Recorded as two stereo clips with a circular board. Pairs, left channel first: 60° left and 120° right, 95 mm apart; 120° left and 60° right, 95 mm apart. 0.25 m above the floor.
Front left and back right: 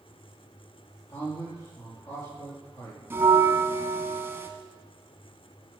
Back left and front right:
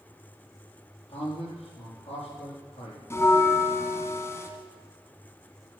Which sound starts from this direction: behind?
A bell, at 3.1 s.